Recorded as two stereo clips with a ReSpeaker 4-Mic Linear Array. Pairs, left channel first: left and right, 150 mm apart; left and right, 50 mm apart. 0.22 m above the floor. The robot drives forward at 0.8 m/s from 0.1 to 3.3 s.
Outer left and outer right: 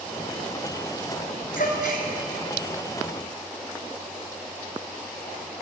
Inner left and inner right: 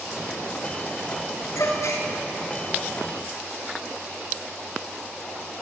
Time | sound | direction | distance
1.6 | a gasp | 70° left (ahead or behind) | 1.5 m